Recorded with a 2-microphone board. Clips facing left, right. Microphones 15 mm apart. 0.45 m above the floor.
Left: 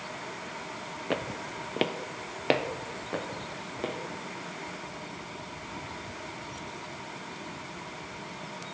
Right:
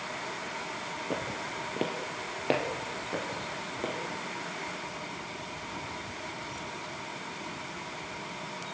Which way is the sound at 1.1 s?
50° left (ahead or behind).